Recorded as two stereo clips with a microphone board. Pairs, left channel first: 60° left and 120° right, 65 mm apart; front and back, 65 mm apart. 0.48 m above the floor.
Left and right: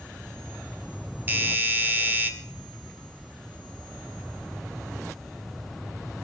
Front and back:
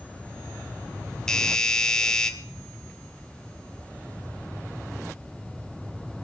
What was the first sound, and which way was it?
A doorbell, 75° right.